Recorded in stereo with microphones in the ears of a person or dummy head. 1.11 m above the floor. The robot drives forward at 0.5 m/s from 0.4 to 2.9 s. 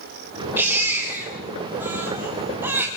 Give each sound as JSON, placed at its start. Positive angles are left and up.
{"t": 0.6, "sound": "a baby crying", "side_deg": -5, "distance_m": 6.0}